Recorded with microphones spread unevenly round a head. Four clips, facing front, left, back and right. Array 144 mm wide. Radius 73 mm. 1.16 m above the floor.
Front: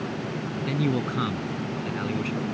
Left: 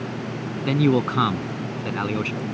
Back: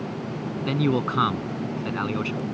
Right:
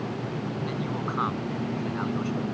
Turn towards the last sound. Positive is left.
turn(degrees=105)